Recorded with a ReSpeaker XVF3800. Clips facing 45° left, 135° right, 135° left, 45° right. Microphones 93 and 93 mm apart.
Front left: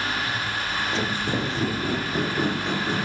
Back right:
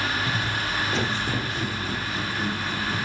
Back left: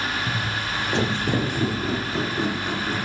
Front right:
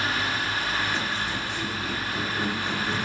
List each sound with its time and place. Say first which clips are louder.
0.3 s footsteps: back right 1 dB, back left 1 dB; 165° left, 0.7 m; by 3.0 s 55° left, 1.1 m